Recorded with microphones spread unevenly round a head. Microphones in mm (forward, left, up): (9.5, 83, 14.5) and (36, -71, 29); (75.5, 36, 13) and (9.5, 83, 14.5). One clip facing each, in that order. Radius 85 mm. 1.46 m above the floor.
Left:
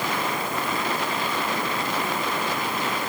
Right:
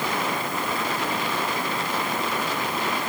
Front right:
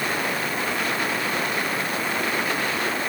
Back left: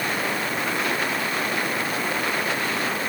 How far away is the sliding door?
No sliding door in this recording.